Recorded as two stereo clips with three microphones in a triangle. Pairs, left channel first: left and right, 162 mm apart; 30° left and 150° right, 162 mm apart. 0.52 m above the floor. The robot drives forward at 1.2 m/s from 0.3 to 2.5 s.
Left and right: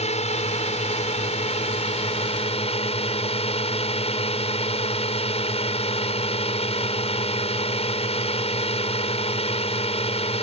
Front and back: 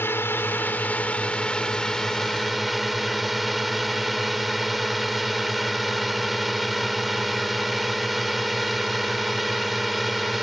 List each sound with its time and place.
0.0 s a drone: 100° left; by 10.4 s 120° left